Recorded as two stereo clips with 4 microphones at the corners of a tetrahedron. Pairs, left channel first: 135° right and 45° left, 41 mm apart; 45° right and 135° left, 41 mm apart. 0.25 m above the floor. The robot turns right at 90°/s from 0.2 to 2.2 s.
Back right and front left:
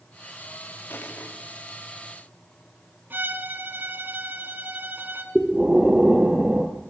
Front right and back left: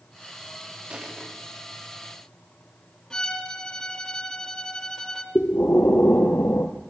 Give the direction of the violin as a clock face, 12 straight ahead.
11 o'clock.